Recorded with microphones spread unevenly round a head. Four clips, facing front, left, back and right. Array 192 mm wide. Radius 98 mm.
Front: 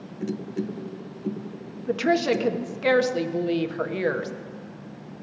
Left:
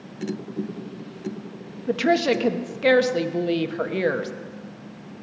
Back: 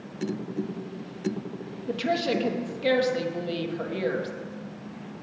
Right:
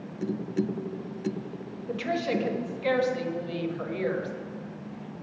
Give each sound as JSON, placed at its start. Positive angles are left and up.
{"t": 1.9, "sound": "a woman speaking", "azimuth_deg": 80, "distance_m": 1.3}